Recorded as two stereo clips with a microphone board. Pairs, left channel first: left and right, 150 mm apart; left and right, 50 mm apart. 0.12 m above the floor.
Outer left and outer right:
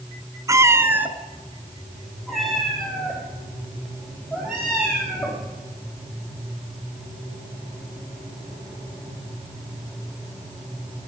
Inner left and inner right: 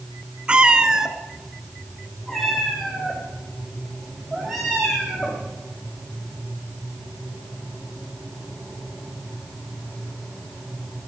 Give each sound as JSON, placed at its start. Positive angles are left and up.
{"t": 0.5, "sound": "a cat meowing", "side_deg": -20, "distance_m": 0.8}